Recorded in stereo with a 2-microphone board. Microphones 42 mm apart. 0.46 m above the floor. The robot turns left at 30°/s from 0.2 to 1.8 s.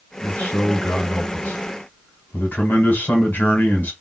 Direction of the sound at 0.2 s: 125° left.